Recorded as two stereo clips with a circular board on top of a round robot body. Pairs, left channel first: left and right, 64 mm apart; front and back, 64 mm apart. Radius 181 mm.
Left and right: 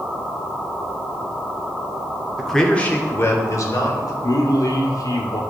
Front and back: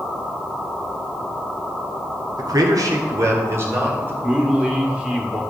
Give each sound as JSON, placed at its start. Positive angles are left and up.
{"t": 2.4, "sound": "a man speaking", "azimuth_deg": 180, "distance_m": 1.8}
{"t": 4.2, "sound": "a man speaking", "azimuth_deg": 105, "distance_m": 2.0}